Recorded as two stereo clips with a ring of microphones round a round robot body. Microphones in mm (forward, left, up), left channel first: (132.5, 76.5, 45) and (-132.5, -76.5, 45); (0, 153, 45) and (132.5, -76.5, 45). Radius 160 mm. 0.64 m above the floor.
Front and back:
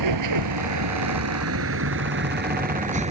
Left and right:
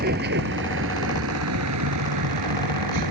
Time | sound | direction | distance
0.0 | a vehicle | 120° right | ?